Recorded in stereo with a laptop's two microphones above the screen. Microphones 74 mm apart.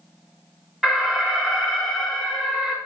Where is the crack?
No crack in this recording.